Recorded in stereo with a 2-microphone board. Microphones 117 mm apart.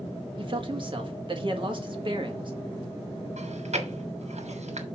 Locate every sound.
0.4 s a man speaking: 45° right (ahead or behind), 1.7 m
3.4 s chewing: 75° right (ahead or behind), 1.4 m